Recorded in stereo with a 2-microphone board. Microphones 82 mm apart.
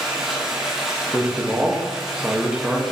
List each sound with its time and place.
0.0 s running water: 5° right (ahead or behind), 1.5 m
1.1 s a man speaking: 10° right (ahead or behind), 1.1 m